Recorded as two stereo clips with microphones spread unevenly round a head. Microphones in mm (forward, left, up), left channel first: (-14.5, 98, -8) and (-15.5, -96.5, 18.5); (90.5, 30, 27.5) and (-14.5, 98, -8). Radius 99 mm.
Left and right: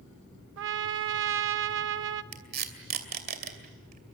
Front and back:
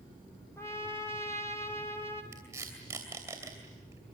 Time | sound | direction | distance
0.6 | a trumpet | 115° right | 1.2 m
2.3 | tape being pulled | 130° right | 2.5 m